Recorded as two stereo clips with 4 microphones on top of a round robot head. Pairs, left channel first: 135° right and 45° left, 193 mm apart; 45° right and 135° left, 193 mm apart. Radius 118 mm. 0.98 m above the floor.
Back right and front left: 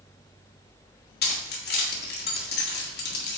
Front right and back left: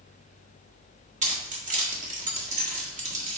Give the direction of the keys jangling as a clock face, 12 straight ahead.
6 o'clock.